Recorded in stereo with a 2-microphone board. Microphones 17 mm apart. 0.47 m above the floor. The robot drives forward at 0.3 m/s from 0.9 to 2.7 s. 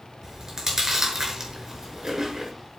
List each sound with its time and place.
0.2 s chewing: 35° right (ahead or behind), 5.5 m; by 2.5 s 40° right (ahead or behind), 5 m